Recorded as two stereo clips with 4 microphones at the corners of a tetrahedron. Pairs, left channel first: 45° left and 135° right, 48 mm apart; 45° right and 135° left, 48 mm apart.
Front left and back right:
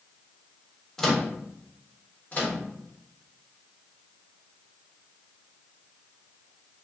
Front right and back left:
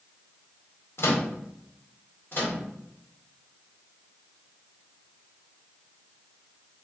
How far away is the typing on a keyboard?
No typing on a keyboard in this recording.